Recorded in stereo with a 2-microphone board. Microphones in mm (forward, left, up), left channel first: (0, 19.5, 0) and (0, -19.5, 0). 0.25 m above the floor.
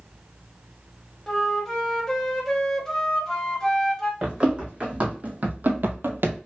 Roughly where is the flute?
Centre.